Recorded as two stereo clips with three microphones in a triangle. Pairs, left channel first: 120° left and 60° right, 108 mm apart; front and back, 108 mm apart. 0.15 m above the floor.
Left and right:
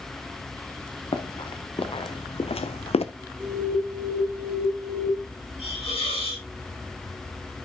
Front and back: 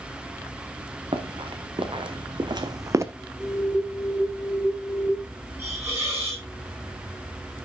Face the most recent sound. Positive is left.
turn(degrees=115)